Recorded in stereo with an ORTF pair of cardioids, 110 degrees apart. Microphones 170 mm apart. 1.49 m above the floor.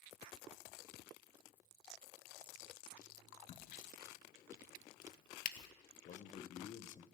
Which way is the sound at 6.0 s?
50° left.